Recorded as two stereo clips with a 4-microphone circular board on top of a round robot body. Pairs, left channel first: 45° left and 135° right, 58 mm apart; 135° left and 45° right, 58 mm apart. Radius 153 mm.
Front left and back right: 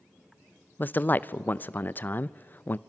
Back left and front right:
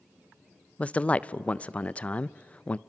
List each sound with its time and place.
0.8 s a man speaking: 80° left, 0.7 m